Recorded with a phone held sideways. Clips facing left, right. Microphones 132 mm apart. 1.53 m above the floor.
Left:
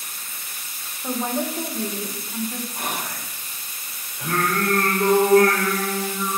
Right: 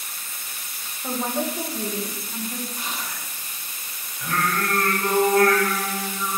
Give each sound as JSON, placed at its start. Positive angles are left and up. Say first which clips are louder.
{"t": 1.0, "sound": "a woman speaking", "louder": "left 1 dB", "side_deg": 0, "distance_m": 1.5}
{"t": 2.8, "sound": "whispering", "louder": "left 4 dB", "side_deg": 55, "distance_m": 0.6}
{"t": 4.2, "sound": "singing", "louder": "left 2 dB", "side_deg": 65, "distance_m": 4.5}